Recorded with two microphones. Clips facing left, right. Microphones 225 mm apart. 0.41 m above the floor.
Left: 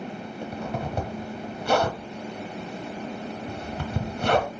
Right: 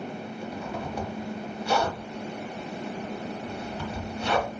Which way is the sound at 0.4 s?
60° left (ahead or behind).